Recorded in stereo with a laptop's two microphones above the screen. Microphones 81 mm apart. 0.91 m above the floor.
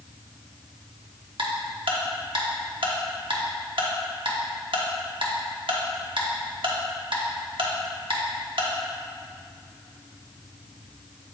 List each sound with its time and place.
1.4 s ticking: 75° right (ahead or behind), 1.0 m